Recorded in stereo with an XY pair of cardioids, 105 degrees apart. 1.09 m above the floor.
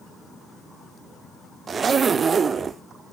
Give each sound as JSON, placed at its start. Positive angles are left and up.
{"t": 1.7, "sound": "a zipper", "azimuth_deg": -40, "distance_m": 0.6}